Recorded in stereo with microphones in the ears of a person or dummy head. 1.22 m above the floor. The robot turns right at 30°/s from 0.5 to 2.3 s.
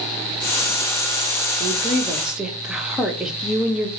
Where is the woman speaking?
20° right (ahead or behind), 1.1 m; by 3.9 s centre (ahead or behind), 1.1 m.